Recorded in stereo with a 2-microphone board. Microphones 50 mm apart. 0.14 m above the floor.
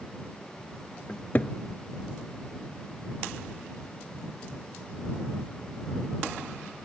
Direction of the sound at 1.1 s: 35° left (ahead or behind).